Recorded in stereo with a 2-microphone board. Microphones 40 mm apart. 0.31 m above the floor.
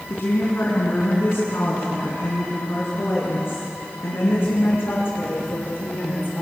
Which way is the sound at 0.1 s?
60° left (ahead or behind).